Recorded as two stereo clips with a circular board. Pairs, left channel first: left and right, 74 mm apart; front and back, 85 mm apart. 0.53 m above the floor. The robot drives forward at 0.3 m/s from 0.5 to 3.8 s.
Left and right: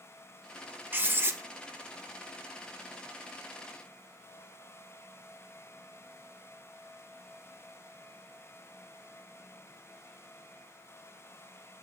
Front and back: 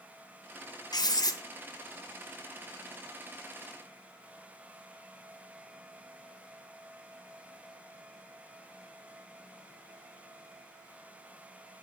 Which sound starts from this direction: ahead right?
Writing, at 0.9 s.